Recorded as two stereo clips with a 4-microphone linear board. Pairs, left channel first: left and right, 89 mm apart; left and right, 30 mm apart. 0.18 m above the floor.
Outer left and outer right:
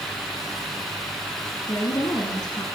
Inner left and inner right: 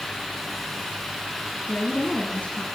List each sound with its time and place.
1.7 s a woman speaking: 50° left (ahead or behind), 1.8 m